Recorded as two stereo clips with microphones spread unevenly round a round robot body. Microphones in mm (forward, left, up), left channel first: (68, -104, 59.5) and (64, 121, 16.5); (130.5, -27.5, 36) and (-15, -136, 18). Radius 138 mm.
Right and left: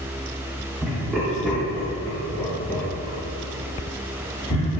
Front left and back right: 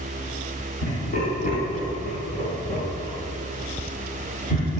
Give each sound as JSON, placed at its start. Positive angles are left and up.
{"t": 0.8, "sound": "laughter", "azimuth_deg": 5, "distance_m": 4.0}